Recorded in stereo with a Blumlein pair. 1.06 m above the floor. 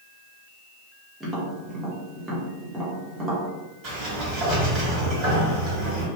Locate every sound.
1.2 s tapping: 10° right, 1.0 m
3.8 s a sliding door: 30° right, 1.5 m